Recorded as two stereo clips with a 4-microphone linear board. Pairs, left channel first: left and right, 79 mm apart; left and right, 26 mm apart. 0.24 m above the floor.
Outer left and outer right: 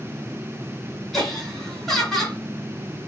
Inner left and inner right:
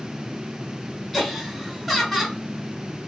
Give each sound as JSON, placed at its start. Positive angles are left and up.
{"t": 1.1, "sound": "laughter", "side_deg": 5, "distance_m": 1.4}